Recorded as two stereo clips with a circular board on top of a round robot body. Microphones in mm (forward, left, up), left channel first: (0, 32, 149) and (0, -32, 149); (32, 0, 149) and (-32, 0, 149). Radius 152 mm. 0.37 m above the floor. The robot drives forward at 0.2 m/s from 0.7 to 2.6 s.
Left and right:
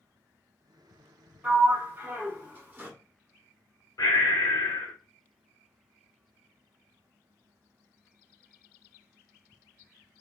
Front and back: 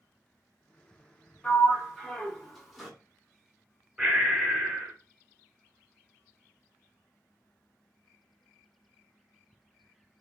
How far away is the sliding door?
About 1.1 m.